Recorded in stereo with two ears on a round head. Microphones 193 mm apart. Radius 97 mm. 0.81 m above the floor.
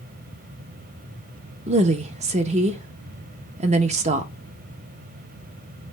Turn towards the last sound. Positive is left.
turn(degrees=-30)  # may be behind; listen again after turning